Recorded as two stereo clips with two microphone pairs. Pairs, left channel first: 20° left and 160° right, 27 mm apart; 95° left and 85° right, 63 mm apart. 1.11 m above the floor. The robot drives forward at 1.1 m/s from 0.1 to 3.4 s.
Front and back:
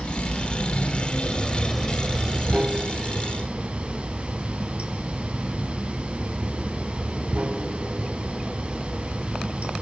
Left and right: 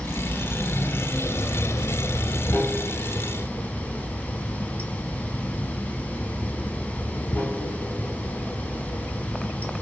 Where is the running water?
25° left, 2 m; by 9.8 s 155° left, 2 m.